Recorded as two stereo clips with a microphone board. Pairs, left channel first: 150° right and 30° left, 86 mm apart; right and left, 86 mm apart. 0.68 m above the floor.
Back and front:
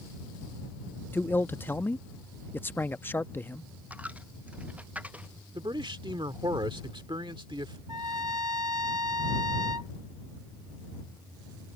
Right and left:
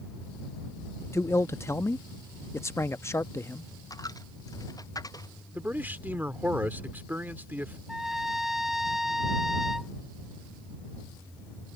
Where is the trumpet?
5° left.